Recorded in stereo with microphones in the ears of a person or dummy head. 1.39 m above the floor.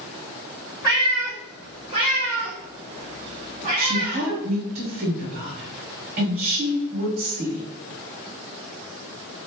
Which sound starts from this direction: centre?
A cat meowing, at 0.8 s.